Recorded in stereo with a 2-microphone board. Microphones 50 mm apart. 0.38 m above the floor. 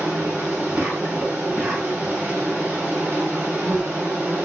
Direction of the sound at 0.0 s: 45° right (ahead or behind).